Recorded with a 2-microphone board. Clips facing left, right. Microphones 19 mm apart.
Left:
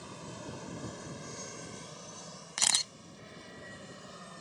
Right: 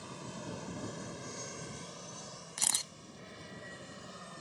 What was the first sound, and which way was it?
An aircraft, centre (ahead or behind).